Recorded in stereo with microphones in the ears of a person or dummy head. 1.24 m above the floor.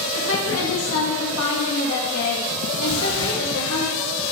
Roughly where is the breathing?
Left.